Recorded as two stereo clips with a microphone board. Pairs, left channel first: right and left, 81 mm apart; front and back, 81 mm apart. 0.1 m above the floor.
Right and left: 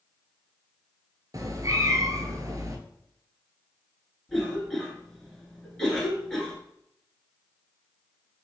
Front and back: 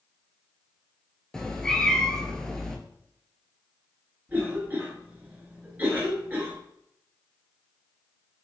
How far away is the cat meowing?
About 0.6 m.